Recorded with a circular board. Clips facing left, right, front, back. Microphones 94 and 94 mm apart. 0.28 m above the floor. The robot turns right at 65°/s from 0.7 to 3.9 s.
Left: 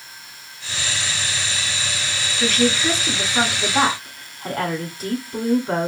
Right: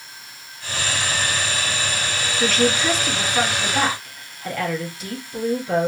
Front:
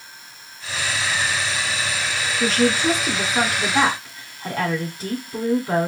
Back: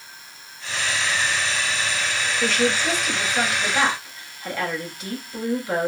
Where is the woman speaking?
50° right, 1.9 m; by 5.9 s 45° left, 1.9 m.